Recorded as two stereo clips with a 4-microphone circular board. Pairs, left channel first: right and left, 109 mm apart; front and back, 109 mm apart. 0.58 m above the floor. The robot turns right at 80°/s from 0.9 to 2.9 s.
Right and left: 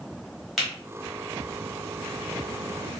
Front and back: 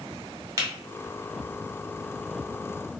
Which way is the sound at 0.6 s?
175° left.